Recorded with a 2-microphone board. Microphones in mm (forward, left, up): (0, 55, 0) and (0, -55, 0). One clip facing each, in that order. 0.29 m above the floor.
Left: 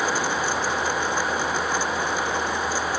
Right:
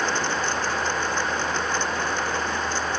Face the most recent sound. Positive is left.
No sound to turn to.